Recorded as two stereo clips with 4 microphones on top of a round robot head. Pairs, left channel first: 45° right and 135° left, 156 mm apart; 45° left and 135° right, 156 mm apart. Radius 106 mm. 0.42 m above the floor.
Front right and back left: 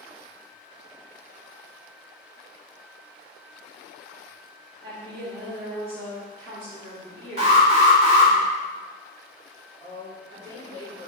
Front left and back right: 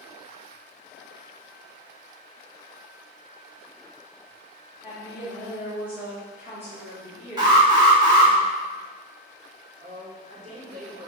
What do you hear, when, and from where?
4.8 s a woman speaking: 150° left, 2 m
7.4 s an alarm: 170° left, 2 m
9.8 s a woman speaking: 165° right, 1.9 m